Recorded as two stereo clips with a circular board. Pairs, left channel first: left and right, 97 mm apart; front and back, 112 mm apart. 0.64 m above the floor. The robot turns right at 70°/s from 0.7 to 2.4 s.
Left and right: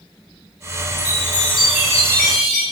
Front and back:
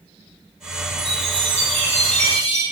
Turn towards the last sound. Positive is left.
turn(degrees=-120)